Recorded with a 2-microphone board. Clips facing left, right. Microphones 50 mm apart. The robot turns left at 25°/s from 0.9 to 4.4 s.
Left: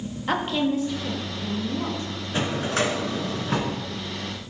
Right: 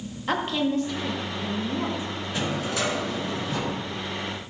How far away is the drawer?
About 2.5 m.